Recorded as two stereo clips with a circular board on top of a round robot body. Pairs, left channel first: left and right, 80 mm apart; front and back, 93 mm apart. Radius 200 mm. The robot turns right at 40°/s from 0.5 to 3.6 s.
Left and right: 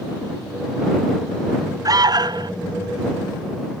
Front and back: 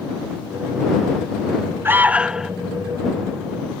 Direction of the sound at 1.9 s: 120° right.